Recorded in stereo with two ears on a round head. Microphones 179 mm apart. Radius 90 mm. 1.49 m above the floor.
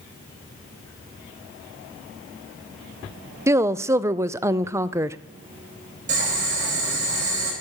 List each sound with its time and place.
3.5 s a woman speaking: 15° right (ahead or behind), 0.5 m
6.1 s boiling: 40° right (ahead or behind), 7 m